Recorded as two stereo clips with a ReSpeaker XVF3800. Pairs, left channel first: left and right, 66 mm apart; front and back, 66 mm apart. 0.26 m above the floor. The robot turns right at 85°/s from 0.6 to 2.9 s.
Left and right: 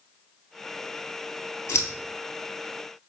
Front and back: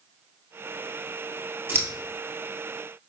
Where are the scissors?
125° left, 1.0 m; by 1.9 s 140° left, 1.0 m.